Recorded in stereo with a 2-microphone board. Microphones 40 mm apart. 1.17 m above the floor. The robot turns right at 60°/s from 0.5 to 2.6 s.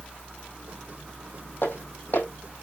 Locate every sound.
1.6 s footsteps: 60° left (ahead or behind), 2.5 m